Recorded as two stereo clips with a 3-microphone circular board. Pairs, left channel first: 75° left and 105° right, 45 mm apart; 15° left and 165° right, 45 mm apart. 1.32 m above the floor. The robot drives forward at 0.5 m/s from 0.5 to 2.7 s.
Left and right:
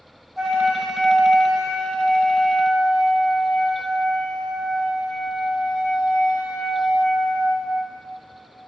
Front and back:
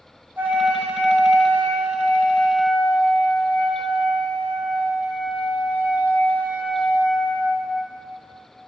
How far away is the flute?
About 1.6 m.